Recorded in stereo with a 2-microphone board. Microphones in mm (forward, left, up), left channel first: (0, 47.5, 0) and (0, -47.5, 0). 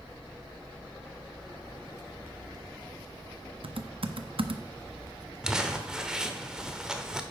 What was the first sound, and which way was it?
Typing on a keyboard, 70° right (ahead or behind).